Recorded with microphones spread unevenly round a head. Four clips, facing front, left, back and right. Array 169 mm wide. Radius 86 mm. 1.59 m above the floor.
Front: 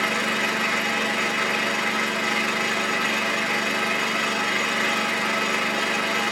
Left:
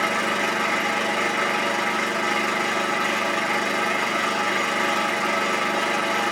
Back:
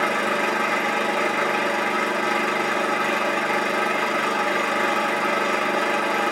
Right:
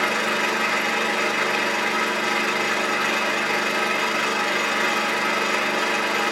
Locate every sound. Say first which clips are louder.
0.0 s an engine running: even, back 3 dB; 170° left, 1.5 m